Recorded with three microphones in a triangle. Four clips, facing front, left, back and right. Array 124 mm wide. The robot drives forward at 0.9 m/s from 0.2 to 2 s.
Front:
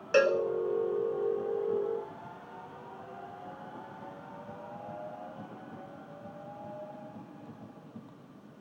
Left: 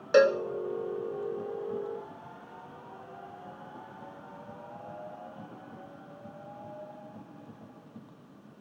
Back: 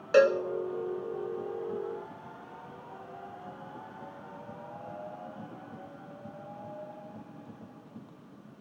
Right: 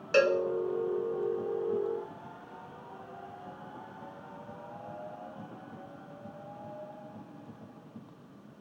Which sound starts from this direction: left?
A cowbell, at 0.1 s.